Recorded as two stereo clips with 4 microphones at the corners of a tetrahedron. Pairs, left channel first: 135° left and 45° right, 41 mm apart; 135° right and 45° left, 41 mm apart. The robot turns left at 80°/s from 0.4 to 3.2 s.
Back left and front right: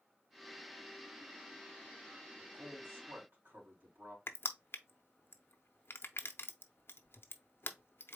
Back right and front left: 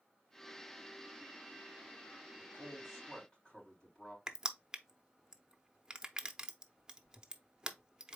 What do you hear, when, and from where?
2.4 s a man speaking: 5° left, 3 m; by 4.2 s 65° right, 3 m
4.3 s crushing: 115° left, 0.6 m